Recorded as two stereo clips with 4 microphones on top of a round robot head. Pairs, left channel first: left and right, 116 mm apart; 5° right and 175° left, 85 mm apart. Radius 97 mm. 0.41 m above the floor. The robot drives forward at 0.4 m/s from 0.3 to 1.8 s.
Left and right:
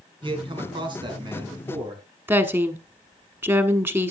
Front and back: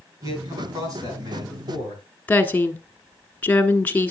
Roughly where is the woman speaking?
Ahead right.